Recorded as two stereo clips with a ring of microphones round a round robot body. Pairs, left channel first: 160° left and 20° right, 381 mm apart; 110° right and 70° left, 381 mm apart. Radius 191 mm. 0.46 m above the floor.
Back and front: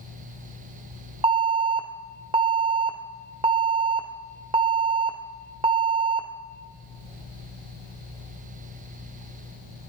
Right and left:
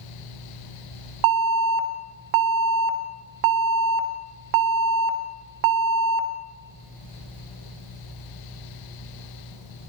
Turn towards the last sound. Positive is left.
turn(degrees=50)